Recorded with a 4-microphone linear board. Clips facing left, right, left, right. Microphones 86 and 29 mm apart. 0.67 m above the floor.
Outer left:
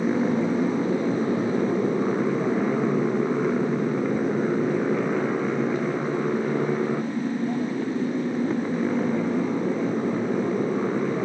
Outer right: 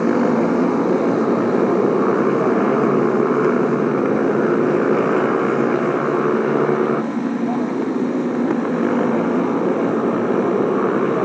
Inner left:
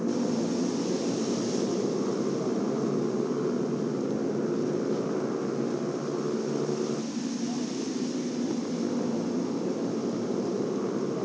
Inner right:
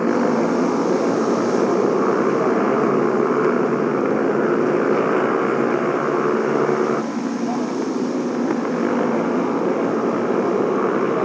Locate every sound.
0.0 s a motorcycle: 90° right; by 11.2 s 75° right (ahead or behind)